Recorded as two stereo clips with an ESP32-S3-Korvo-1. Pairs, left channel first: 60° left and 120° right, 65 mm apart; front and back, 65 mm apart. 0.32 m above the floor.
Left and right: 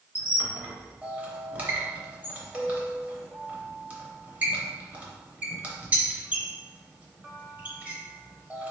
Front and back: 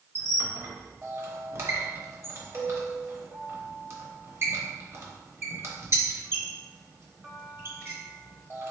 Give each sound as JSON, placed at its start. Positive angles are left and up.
{"t": 0.1, "sound": "a squeak", "azimuth_deg": -175, "distance_m": 0.9}